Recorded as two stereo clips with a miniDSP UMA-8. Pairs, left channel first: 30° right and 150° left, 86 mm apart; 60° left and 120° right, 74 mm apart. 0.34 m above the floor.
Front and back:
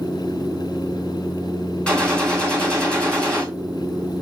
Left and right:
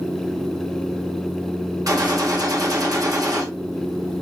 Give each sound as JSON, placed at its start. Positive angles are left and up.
{"t": 1.9, "sound": "a gunshot", "azimuth_deg": -105, "distance_m": 2.5}